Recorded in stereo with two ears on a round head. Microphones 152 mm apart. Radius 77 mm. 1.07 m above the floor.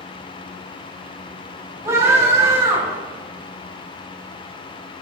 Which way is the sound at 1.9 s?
15° right (ahead or behind).